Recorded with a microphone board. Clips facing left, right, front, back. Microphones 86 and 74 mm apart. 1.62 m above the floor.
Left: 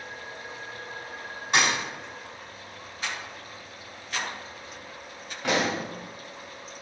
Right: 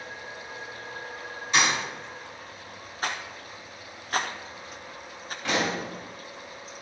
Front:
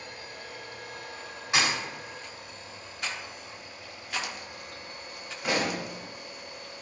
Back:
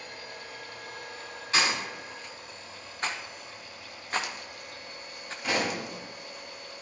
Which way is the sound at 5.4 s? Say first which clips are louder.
Left 2 dB, front 1 dB; 70° left.